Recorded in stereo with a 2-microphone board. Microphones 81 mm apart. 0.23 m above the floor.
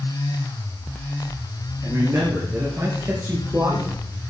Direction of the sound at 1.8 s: 40° right (ahead or behind).